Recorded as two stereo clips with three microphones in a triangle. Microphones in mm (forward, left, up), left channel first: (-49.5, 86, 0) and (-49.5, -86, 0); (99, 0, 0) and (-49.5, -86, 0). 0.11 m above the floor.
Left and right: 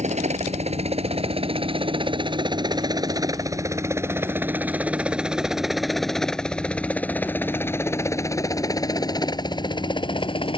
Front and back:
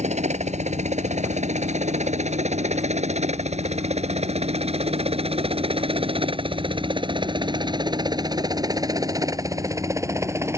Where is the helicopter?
120° right; by 10.6 s 140° left.